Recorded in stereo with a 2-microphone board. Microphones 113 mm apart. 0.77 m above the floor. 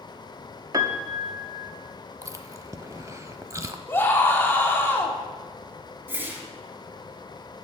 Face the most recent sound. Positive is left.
turn(degrees=-20)  # may be behind; listen again after turning